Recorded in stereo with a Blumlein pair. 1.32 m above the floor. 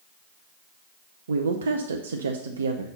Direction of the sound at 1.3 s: 65° right.